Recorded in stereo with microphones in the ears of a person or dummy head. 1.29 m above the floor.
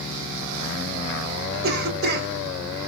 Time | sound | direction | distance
1.6 | a cough | 55° right (ahead or behind) | 1.2 m